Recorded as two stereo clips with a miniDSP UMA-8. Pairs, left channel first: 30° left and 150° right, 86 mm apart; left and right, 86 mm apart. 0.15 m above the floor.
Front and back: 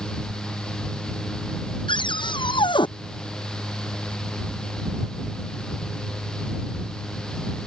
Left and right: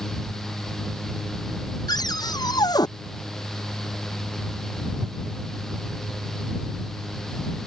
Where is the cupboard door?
50° left.